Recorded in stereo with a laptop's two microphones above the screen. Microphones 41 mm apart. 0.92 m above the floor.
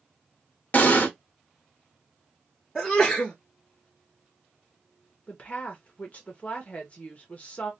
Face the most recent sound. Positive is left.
turn(degrees=35)  # may be behind; listen again after turning